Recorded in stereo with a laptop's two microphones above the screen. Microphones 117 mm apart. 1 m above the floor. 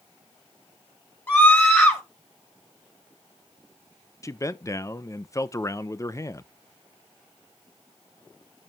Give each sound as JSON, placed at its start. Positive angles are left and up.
{"t": 1.3, "sound": "a scream", "side_deg": 20, "distance_m": 4.0}
{"t": 4.2, "sound": "a man speaking", "side_deg": 25, "distance_m": 0.5}